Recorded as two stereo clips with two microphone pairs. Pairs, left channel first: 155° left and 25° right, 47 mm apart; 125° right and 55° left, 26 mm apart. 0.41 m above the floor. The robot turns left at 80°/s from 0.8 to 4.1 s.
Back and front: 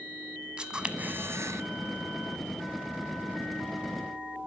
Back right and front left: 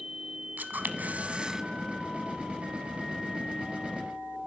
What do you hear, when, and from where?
0.6 s a camera shutter: 45° left, 1.0 m; by 1.6 s 20° right, 1.0 m